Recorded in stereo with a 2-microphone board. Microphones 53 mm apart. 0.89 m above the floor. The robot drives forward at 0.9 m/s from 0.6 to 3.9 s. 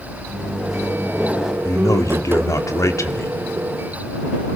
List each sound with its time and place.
0.3 s a microwave: 5° right (ahead or behind), 5 m
1.6 s a man speaking: 70° left (ahead or behind), 2 m; by 3.3 s 60° left (ahead or behind), 2.5 m